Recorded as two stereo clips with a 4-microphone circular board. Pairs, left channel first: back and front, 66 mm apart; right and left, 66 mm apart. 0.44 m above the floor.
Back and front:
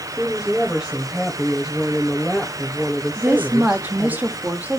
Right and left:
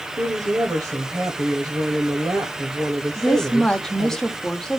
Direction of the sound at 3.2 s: 15° right.